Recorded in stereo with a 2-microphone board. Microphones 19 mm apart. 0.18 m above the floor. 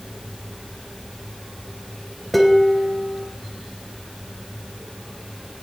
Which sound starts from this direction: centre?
Dishes clattering, at 2.3 s.